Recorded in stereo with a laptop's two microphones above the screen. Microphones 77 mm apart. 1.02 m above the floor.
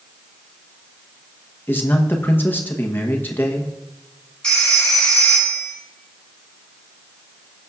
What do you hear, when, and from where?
1.7 s a man speaking: 25° left (ahead or behind), 0.9 m
4.4 s a phone ringing: 10° left (ahead or behind), 2.5 m